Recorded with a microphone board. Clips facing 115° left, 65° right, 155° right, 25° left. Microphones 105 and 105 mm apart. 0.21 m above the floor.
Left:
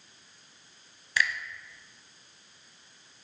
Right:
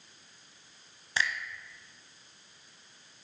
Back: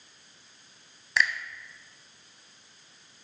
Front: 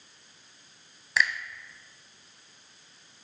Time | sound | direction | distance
1.2 | a finger snap | 65° right | 1.0 m